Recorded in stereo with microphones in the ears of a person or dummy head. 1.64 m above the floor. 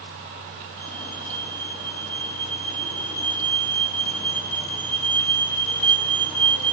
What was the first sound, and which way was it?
A fire alarm, 40° left (ahead or behind).